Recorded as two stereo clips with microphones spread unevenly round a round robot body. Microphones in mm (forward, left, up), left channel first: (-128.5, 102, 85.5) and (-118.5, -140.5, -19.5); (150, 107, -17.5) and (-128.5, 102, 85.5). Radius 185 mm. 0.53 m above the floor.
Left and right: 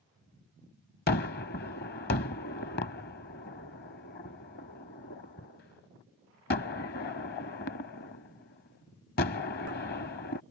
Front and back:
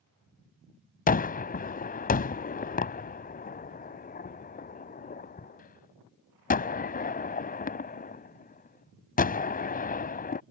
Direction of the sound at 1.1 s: 75° left.